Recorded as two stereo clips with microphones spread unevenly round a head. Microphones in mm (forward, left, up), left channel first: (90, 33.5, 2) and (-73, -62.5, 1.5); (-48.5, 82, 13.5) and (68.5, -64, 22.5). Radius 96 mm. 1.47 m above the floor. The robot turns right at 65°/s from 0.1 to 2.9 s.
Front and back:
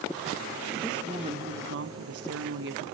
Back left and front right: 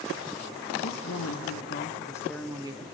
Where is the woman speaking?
120° left, 1.3 m; by 2.9 s 110° right, 1.3 m.